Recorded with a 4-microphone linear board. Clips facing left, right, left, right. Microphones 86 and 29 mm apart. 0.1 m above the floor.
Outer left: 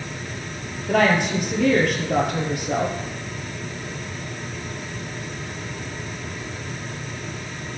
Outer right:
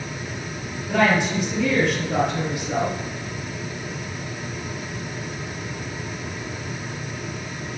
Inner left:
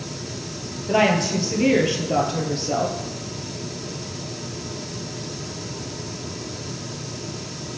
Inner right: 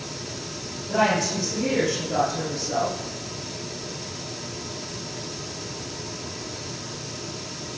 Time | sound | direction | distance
0.9 | a woman speaking | 55° left (ahead or behind) | 2 m